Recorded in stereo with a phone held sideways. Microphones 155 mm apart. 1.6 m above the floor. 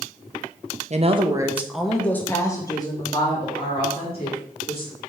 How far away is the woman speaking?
About 0.9 m.